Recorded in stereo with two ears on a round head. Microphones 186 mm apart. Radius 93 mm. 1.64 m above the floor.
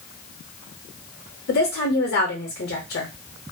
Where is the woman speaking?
50° left (ahead or behind), 0.6 m.